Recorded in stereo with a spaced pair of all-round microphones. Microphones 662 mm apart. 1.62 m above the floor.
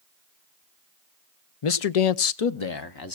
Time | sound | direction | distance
1.6 | a man speaking | 50° left (ahead or behind) | 0.7 m